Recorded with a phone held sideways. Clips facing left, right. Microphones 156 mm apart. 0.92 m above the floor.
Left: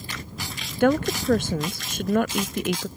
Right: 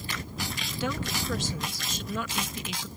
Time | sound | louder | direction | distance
0.8 | a woman speaking | left 12 dB | 60° left (ahead or behind) | ?